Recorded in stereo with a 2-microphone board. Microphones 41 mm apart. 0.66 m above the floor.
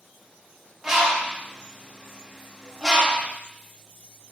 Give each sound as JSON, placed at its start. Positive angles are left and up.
{"t": 0.8, "sound": "a bird", "side_deg": -10, "distance_m": 0.9}